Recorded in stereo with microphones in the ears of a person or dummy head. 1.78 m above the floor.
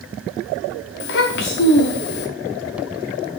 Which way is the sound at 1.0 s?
50° left (ahead or behind).